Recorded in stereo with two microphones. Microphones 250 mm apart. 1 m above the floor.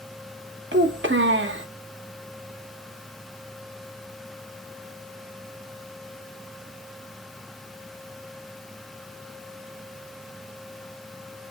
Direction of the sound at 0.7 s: 50° right (ahead or behind).